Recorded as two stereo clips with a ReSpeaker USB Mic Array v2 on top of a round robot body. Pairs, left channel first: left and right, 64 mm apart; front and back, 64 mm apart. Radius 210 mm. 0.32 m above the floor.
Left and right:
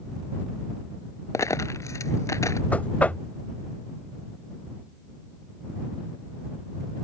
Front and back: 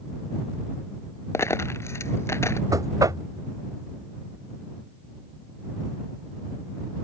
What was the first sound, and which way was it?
A dropped coin, 50° left.